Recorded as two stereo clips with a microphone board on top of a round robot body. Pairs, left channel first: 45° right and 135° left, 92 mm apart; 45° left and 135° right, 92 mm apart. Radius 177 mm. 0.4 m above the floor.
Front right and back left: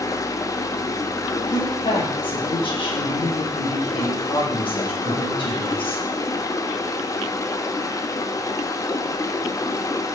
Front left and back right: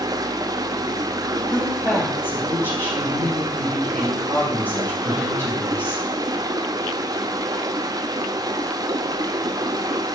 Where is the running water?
95° right, 1.1 m.